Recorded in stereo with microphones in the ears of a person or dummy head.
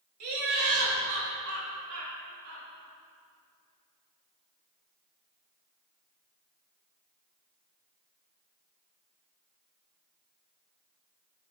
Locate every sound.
0.2 s laughter: 80° right, 2.5 m